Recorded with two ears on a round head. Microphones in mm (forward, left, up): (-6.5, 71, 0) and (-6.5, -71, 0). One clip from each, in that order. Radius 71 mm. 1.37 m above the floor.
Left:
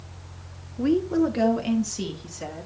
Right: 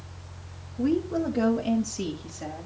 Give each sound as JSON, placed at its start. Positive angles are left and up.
{"t": 0.8, "sound": "a woman speaking", "side_deg": 40, "distance_m": 0.9}